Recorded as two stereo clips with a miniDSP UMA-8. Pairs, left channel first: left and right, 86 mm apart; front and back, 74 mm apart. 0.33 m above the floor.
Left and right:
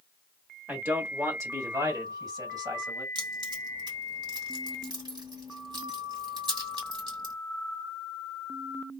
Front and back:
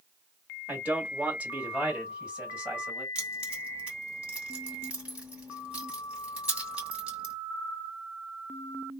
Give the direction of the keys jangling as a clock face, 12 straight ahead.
4 o'clock.